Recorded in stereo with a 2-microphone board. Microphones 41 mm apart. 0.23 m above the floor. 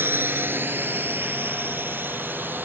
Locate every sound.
0.0 s a drone: 55° right (ahead or behind); by 2.7 s 50° right (ahead or behind)